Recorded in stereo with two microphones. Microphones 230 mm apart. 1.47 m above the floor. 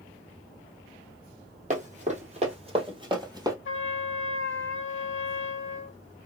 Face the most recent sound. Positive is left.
turn(degrees=60)  # may be behind; listen again after turning